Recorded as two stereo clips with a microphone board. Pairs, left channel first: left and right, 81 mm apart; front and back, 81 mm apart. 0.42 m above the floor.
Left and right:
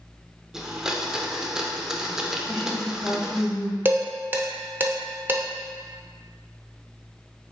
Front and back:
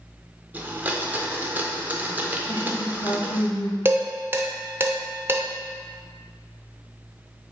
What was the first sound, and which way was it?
A blender, 165° right.